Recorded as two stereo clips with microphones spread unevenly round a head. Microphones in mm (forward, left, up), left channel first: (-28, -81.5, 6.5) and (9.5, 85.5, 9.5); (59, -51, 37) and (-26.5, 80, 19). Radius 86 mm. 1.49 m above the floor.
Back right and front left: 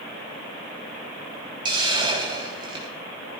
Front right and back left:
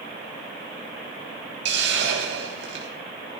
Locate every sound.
1.6 s a hiss: 140° left, 4.5 m